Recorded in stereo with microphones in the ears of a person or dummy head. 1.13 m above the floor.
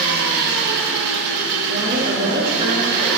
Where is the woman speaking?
35° right (ahead or behind), 1.4 m.